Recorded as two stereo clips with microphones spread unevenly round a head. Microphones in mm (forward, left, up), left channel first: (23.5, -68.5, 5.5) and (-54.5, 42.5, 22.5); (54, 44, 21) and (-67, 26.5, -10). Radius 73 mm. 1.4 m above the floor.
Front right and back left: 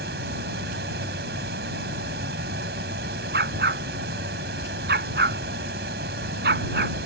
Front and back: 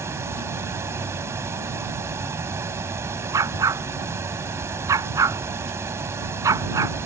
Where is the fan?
120° left.